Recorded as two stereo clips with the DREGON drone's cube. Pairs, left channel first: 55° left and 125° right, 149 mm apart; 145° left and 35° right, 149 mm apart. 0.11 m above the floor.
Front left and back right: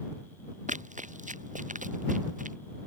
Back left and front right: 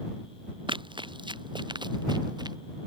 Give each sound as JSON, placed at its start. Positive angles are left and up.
{"t": 0.7, "sound": "running footsteps", "azimuth_deg": -90}